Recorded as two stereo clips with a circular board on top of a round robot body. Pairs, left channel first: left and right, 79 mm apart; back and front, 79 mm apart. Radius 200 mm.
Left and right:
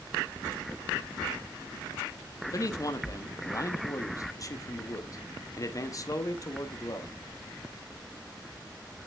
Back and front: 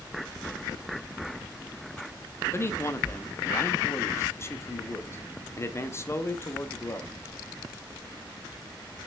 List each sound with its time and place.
2.5 s a man speaking: 125° left, 1.1 m